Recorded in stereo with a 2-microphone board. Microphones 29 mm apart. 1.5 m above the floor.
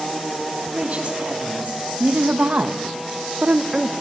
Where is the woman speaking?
50° right (ahead or behind), 4 m; by 3.9 s 20° right (ahead or behind), 1.2 m.